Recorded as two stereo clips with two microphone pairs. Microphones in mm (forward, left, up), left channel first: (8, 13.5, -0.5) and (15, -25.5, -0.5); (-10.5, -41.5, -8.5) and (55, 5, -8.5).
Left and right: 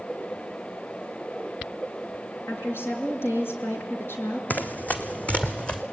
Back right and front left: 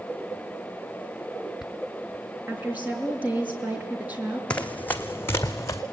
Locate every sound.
2.5 s a woman speaking: 105° left, 5.5 m
4.5 s running footsteps: 140° left, 1.5 m; by 5.8 s 165° left, 2 m